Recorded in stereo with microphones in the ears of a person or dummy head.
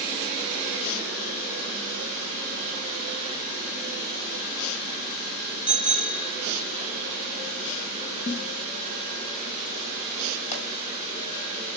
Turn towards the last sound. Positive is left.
turn(degrees=35)  # may be behind; listen again after turning